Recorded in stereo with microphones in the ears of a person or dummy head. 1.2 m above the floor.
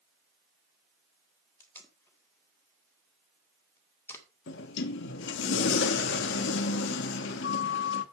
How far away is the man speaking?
No man speaking in this recording.